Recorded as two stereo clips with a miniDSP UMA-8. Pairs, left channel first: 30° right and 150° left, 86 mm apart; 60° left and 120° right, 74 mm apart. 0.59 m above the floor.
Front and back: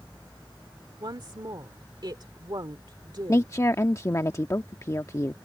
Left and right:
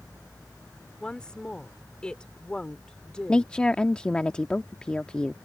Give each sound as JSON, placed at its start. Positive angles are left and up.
{"t": 1.0, "sound": "a woman speaking", "azimuth_deg": 135}
{"t": 3.3, "sound": "a woman speaking", "azimuth_deg": -10}